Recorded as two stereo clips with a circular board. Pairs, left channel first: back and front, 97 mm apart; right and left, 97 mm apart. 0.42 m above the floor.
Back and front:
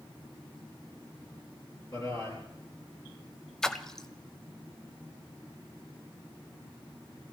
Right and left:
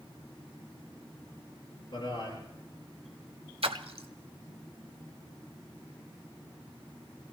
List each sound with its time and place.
1.9 s a man speaking: 135° right, 10 m
3.6 s a splash: 95° left, 0.7 m